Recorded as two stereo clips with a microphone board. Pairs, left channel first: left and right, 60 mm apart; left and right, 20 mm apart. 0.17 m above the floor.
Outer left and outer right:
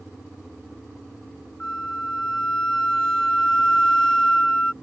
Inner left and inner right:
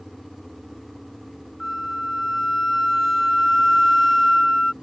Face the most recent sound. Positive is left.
turn(degrees=10)  # may be behind; listen again after turning